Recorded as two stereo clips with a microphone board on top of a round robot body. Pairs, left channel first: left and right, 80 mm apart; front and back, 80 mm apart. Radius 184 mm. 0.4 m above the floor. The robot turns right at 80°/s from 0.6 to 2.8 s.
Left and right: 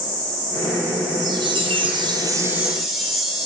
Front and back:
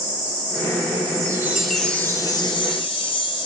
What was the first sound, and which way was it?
A chime, 130° right.